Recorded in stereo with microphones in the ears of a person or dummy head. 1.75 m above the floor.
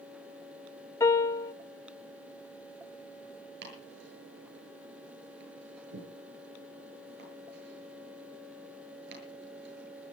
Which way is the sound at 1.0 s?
15° left (ahead or behind).